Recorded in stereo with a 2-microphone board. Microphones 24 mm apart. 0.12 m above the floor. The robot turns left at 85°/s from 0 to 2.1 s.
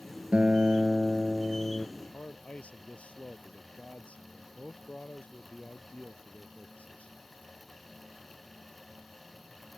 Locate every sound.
0.3 s a guitar: 95° right; by 1.9 s 135° left
2.0 s a man speaking: 60° left (ahead or behind)